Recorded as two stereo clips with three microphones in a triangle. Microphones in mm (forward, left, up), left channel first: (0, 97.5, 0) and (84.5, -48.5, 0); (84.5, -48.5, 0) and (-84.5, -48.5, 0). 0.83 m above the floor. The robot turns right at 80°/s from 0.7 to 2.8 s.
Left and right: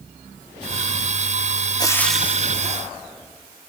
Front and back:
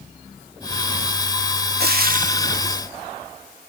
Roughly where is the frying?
Behind.